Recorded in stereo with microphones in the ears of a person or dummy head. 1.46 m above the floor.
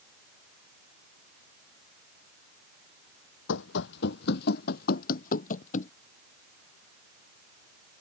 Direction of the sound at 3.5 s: 65° left (ahead or behind).